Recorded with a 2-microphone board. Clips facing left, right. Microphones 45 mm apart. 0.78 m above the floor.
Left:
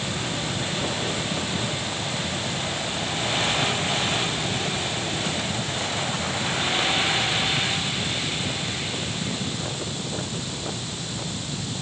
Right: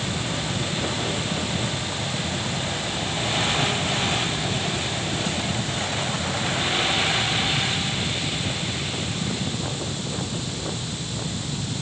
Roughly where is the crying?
No crying in this recording.